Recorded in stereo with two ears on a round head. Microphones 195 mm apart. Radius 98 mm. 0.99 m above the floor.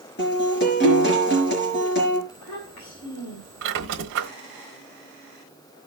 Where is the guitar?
50° left (ahead or behind), 4.5 m.